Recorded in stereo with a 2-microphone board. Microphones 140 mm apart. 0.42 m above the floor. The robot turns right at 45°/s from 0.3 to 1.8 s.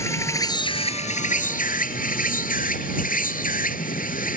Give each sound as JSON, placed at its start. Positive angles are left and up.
{"t": 0.0, "sound": "an insect", "azimuth_deg": 20}